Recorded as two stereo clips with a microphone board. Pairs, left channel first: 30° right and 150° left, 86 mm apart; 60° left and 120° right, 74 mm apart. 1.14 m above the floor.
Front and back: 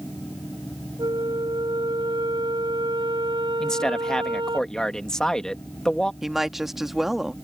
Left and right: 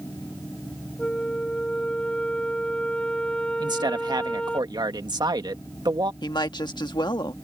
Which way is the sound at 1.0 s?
135° left.